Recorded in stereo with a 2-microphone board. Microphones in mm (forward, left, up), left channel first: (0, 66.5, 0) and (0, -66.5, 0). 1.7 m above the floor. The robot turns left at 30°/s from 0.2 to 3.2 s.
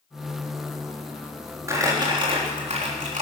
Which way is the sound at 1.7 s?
20° right.